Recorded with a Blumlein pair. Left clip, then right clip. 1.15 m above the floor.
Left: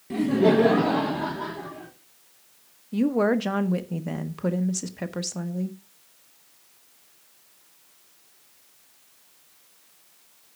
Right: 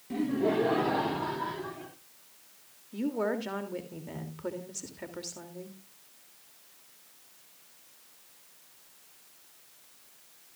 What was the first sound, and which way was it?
Laughter, 15° left.